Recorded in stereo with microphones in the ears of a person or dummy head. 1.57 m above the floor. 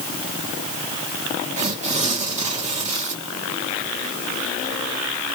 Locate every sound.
1.6 s tearing paper: 35° right (ahead or behind), 2.5 m